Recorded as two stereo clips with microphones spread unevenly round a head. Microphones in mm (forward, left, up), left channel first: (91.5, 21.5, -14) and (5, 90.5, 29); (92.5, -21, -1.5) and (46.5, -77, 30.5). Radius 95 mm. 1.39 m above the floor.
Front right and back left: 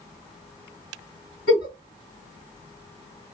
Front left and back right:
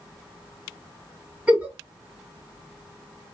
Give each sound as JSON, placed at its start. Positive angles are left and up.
{"t": 1.5, "sound": "a giggle", "azimuth_deg": -75, "distance_m": 2.5}